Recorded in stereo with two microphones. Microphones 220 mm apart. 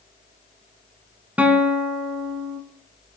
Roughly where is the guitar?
Centre.